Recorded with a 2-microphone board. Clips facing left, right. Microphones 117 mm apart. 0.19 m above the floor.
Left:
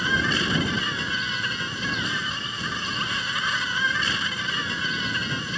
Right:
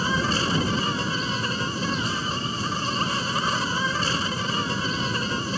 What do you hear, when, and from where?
0.0 s an insect: 40° right (ahead or behind)